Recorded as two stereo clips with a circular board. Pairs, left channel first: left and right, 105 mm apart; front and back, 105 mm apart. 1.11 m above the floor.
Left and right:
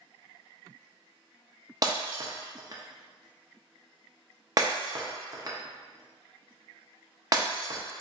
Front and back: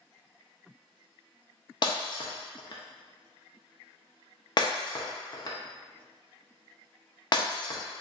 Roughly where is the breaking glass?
Ahead right.